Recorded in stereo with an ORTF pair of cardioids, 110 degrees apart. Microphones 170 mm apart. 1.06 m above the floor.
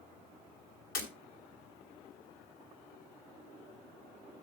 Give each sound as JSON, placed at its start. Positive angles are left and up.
{"t": 0.9, "sound": "breaking glass", "azimuth_deg": 65, "distance_m": 3.5}